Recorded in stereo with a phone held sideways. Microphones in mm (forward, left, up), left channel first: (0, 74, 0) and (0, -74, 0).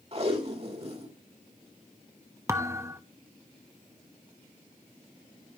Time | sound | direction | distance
0.1 | tape being pulled | 45° right (ahead or behind) | 1.9 m
2.5 | a thud | 20° right (ahead or behind) | 0.9 m